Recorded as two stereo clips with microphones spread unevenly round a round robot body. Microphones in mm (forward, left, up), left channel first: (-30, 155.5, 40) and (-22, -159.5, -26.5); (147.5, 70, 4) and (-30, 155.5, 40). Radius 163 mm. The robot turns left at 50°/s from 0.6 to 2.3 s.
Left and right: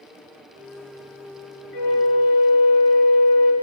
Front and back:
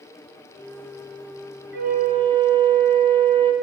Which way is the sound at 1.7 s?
115° left.